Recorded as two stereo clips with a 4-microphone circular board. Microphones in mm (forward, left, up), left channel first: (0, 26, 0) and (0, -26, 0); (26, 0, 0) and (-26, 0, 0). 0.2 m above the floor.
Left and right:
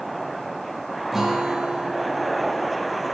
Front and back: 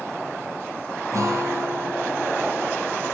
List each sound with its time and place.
1.1 s a guitar: 175° right, 3 m